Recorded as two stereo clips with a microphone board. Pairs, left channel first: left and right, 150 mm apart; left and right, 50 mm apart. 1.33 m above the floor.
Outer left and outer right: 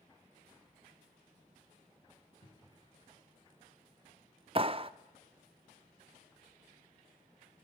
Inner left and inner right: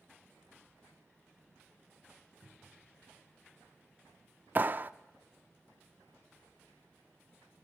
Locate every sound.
2.4 s a cupboard door: 70° left (ahead or behind), 6 m
4.5 s a clap: 40° right (ahead or behind), 0.6 m